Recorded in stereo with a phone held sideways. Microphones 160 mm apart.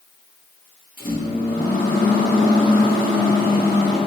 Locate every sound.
1.0 s a microwave: 55° left (ahead or behind), 1.1 m